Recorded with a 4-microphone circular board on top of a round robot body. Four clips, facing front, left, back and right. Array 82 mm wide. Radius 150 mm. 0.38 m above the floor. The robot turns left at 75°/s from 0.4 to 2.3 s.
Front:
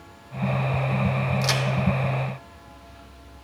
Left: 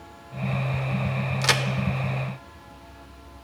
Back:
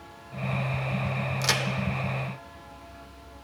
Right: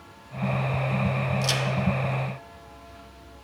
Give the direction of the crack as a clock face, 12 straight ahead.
9 o'clock.